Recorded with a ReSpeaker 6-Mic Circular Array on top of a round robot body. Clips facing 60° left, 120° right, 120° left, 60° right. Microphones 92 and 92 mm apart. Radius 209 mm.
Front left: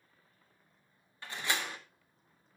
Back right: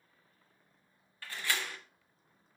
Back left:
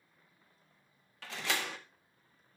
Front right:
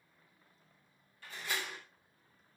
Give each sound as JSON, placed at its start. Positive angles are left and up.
{"t": 1.2, "sound": "a door slam", "azimuth_deg": 130, "distance_m": 1.5}